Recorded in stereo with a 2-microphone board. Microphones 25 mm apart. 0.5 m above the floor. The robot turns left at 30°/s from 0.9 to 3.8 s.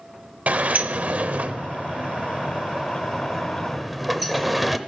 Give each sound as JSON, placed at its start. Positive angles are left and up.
{"t": 0.5, "sound": "a sliding door", "side_deg": -80, "distance_m": 0.7}